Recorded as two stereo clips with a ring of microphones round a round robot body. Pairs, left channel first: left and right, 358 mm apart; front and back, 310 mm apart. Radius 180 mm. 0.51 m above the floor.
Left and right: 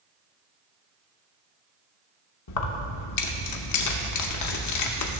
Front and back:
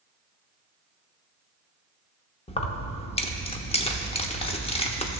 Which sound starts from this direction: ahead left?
Keys jangling, at 2.5 s.